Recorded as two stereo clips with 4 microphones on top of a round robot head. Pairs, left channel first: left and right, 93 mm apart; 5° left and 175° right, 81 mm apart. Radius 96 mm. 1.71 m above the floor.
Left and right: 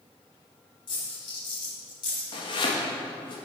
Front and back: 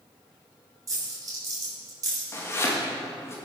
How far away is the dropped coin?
About 2.5 m.